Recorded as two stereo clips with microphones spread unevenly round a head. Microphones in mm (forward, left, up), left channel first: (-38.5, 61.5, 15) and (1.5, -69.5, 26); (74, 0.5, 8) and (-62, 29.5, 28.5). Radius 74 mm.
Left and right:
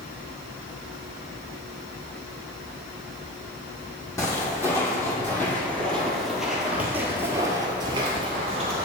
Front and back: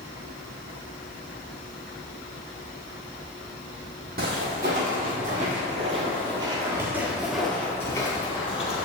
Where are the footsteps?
175° left, 2 m; by 8.8 s 55° right, 1.3 m.